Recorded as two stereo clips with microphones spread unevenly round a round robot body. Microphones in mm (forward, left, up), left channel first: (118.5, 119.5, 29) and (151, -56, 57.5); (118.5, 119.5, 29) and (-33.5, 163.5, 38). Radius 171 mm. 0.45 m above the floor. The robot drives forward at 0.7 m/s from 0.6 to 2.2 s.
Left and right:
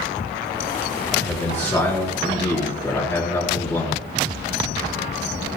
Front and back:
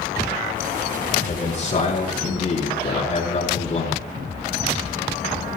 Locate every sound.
1.1 s a man speaking: 25° left, 5 m; by 4.1 s 30° left, 4 m